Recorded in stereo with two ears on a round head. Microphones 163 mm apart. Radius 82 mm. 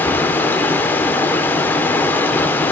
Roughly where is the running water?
Centre.